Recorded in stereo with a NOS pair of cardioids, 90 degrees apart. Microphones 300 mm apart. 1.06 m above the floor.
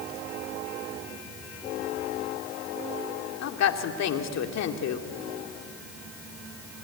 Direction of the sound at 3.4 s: 65° left.